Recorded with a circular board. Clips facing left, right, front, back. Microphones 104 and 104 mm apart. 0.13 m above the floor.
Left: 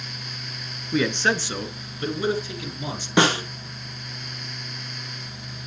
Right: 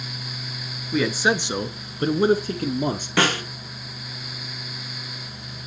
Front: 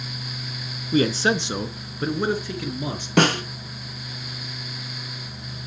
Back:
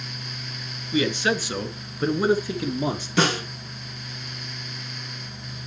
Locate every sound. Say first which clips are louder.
0.9 s a man speaking: right 1 dB, front 3 dB; straight ahead, 1.3 m; by 3.1 s 120° right, 2.0 m
3.2 s a snare drum: left 3 dB, front 4 dB; 20° left, 2.5 m